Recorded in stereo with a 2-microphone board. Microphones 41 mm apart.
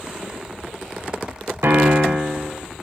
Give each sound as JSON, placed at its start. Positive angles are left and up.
{"t": 1.6, "sound": "a piano", "side_deg": -70, "distance_m": 0.9}